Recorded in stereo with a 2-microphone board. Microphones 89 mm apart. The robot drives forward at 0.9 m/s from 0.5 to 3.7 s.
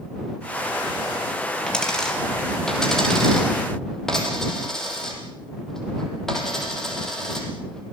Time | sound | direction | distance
1.7 | a dropped coin | 10° left (ahead or behind) | 4 m